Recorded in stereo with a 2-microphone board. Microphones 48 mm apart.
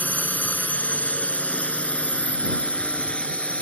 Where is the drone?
35° left (ahead or behind); by 3.6 s 25° left (ahead or behind).